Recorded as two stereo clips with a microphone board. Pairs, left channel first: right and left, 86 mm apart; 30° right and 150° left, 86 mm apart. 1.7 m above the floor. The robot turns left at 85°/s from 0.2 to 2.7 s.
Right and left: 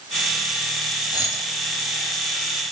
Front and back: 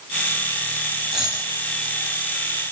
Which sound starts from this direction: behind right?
A dropped coin, at 1.1 s.